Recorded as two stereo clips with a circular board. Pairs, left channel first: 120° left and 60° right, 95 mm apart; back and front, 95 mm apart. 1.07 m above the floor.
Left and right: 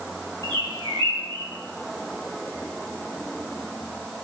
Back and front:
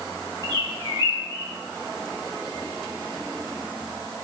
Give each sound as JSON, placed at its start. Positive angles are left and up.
{"t": 0.4, "sound": "a bird", "azimuth_deg": -35, "distance_m": 1.6}